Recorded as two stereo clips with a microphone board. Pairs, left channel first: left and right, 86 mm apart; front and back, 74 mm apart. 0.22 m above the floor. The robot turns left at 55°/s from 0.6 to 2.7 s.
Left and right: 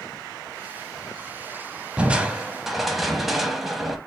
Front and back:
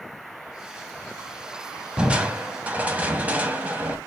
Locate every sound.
2.0 s crushing: 135° right, 0.7 m; by 4.0 s 175° right, 0.7 m